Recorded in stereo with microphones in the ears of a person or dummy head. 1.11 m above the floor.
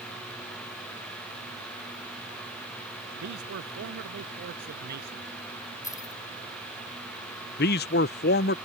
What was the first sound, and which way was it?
A man speaking, 65° right (ahead or behind).